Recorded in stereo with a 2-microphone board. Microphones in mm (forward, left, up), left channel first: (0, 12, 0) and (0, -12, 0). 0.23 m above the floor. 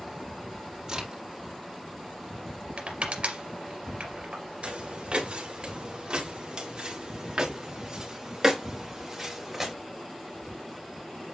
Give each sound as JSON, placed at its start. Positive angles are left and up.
{"t": 0.9, "sound": "a crack", "side_deg": -25, "distance_m": 5.0}
{"t": 2.8, "sound": "crushing", "side_deg": -55, "distance_m": 3.0}
{"t": 4.6, "sound": "footsteps", "side_deg": -50, "distance_m": 4.0}